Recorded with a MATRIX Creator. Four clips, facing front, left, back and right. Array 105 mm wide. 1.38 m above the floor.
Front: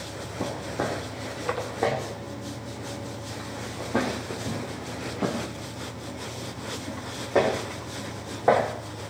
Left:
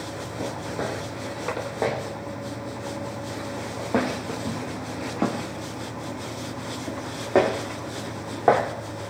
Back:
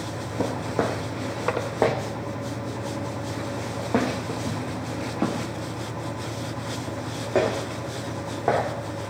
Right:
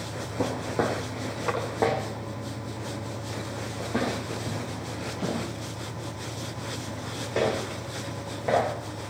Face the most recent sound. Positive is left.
turn(degrees=100)